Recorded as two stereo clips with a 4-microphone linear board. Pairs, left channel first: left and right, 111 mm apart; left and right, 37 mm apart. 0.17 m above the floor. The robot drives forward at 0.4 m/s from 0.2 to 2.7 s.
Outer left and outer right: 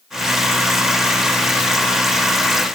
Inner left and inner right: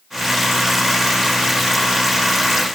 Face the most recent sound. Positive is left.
No sound to turn to.